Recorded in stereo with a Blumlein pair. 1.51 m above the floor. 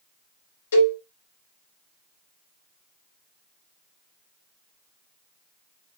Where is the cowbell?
65° left, 3 m.